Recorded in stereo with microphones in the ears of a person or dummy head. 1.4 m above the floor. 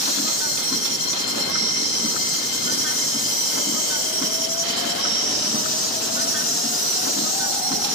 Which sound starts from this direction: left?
An insect, at 0.0 s.